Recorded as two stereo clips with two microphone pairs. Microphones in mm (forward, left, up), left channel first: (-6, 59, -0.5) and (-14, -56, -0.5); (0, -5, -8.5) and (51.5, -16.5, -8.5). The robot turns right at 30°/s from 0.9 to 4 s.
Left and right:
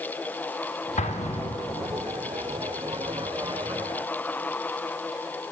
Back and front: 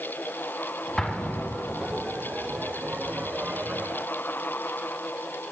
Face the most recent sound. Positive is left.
turn(degrees=175)